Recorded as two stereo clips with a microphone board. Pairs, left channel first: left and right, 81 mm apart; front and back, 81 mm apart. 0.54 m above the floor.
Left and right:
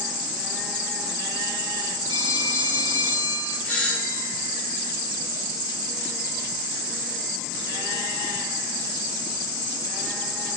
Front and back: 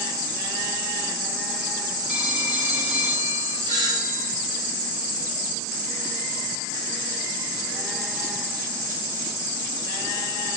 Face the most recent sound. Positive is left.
turn(degrees=165)